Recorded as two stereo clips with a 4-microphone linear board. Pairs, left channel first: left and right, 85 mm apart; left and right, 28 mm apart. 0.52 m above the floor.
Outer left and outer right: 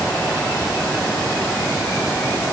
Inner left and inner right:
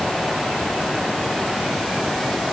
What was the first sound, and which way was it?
Only background noise.